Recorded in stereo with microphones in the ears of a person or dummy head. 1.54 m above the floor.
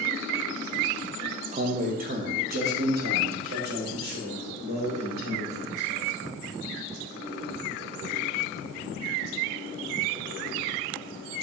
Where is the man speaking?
45° right (ahead or behind), 0.7 m; by 6.2 s 65° right (ahead or behind), 3 m.